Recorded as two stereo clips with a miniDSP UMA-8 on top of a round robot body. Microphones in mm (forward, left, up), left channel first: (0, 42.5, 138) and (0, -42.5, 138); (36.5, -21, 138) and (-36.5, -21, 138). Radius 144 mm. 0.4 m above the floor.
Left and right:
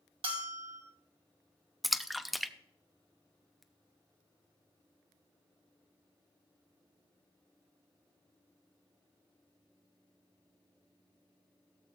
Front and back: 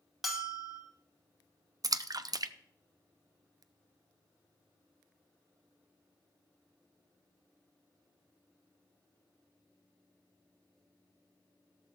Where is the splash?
Straight behind, 0.6 m.